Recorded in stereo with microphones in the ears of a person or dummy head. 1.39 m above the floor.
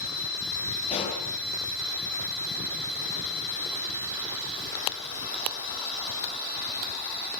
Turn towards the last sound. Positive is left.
turn(degrees=30)  # may be behind; listen again after turning